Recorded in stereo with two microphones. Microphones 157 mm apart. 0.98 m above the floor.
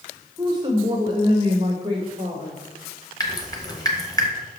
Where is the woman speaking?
25° right (ahead or behind), 0.9 m; by 2.6 s 30° right (ahead or behind), 1.8 m.